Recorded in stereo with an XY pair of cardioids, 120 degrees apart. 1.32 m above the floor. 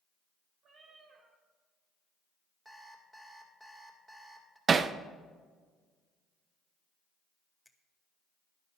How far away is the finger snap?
About 1.1 m.